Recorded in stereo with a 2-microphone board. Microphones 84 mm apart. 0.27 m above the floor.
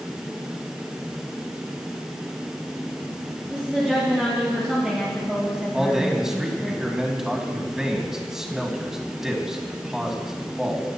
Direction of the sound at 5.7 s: 5° right (ahead or behind).